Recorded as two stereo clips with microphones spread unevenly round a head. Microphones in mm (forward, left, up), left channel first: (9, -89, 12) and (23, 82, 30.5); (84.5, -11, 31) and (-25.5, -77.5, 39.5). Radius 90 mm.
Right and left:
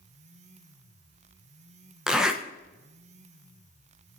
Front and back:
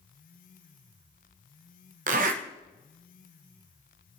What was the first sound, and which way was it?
A zipper, 170° left.